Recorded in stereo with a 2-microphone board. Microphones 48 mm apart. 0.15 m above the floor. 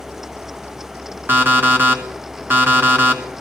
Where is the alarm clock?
45° right (ahead or behind), 1.2 m.